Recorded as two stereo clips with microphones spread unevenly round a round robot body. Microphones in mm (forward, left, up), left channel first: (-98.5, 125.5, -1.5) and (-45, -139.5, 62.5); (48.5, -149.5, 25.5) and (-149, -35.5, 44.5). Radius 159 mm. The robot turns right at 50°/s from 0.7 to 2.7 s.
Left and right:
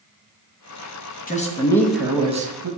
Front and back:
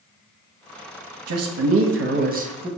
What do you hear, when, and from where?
1.3 s a man speaking: 150° left, 0.8 m; by 2.7 s 135° right, 0.8 m